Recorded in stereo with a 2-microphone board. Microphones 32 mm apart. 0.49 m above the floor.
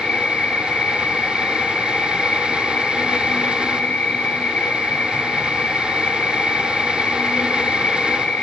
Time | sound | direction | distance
0.0 | an insect | 60° left (ahead or behind) | 1.2 m